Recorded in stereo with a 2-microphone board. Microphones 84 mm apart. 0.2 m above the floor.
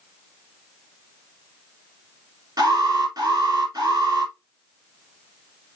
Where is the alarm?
55° right (ahead or behind), 6 m.